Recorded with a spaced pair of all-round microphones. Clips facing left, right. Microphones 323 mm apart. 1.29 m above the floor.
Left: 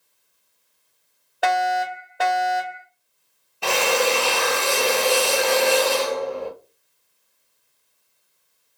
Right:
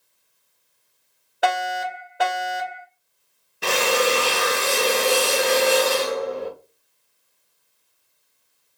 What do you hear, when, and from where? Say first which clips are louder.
1.4 s a fire alarm: left 2 dB; centre (ahead or behind), 1.9 m
3.6 s a drill: even; 25° right (ahead or behind), 0.9 m